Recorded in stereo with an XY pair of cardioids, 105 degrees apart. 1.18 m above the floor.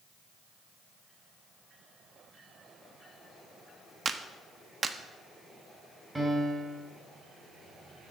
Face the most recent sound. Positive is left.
turn(degrees=-15)